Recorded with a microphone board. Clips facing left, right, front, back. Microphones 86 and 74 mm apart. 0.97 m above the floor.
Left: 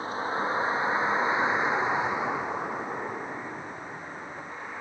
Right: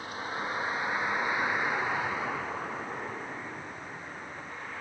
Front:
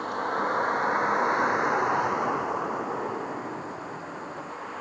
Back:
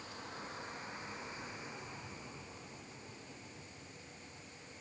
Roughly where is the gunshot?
I don't hear a gunshot.